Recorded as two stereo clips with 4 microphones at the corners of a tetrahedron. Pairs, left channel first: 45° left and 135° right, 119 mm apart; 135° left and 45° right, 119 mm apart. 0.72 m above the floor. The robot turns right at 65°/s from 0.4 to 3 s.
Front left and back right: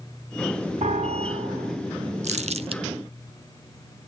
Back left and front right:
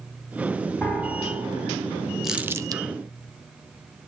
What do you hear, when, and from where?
0.8 s a piano: 155° right, 2.5 m; by 1.8 s 90° right, 2.5 m
2.2 s crumpling: 135° right, 0.6 m; by 2.8 s 95° right, 0.6 m